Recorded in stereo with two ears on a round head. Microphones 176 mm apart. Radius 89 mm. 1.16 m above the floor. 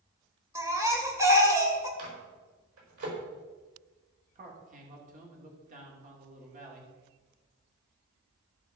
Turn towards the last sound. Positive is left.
turn(degrees=-40)  # may be behind; listen again after turning